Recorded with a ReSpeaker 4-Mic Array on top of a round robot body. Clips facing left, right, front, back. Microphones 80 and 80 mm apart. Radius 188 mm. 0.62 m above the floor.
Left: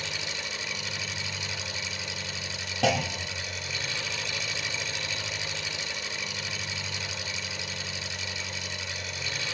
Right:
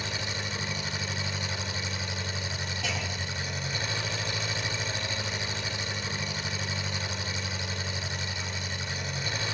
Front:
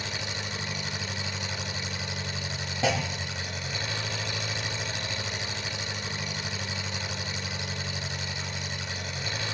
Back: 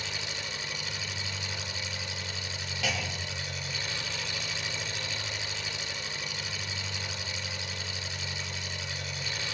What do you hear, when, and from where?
0.0 s an engine running: 40° right, 3.5 m
2.8 s a clunk: 60° left, 0.6 m